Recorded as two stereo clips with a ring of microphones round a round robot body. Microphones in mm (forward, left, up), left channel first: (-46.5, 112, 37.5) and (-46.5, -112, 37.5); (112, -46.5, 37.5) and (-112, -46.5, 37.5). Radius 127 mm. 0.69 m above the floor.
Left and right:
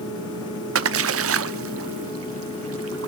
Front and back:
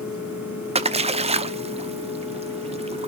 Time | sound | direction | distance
0.8 | a splash | 115° right | 0.9 m